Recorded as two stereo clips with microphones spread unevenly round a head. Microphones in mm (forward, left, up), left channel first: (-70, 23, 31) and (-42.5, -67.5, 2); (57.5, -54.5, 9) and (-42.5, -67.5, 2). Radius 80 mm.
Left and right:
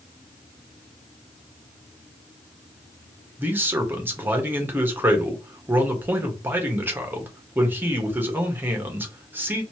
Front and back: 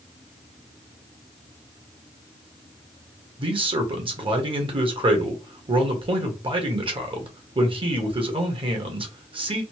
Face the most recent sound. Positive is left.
turn(degrees=-140)